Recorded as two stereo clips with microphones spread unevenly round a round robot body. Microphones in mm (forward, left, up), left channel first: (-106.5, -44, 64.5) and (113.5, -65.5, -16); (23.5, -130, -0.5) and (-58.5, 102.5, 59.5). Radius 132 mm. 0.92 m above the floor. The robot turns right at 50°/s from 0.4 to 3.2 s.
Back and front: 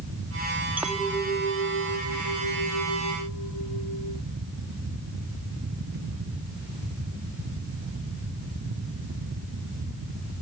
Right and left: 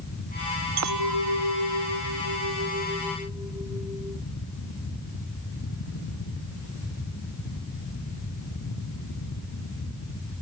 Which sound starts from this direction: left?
A clink, at 0.8 s.